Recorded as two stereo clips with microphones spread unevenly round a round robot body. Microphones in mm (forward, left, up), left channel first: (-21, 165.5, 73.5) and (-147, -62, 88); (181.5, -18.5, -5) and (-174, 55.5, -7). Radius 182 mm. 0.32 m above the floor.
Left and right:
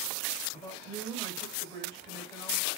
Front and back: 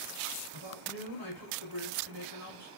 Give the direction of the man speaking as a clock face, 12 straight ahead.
8 o'clock.